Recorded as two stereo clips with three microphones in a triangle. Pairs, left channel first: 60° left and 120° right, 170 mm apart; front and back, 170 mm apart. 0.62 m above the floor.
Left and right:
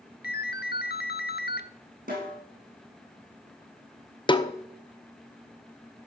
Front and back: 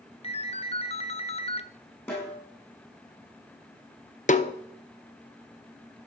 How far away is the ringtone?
About 0.8 m.